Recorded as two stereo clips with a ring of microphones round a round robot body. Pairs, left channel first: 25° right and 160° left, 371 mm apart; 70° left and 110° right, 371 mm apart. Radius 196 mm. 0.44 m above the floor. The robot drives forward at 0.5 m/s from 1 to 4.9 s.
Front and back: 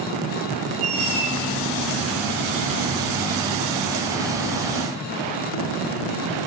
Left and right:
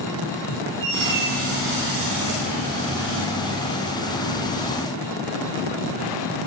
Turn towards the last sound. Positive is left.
turn(degrees=180)